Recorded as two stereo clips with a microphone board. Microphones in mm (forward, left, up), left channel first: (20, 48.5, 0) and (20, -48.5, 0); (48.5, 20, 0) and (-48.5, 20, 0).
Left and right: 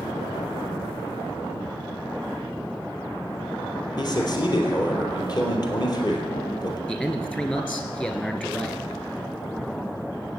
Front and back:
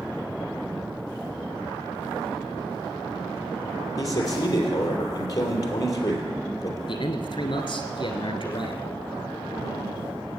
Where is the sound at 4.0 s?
50° left, 3.5 m.